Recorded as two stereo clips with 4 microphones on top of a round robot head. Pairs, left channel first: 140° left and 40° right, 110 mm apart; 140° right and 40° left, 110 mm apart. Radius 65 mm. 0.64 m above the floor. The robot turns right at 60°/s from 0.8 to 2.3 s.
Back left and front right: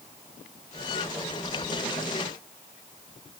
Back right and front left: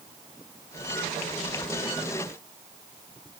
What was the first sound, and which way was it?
Only background noise.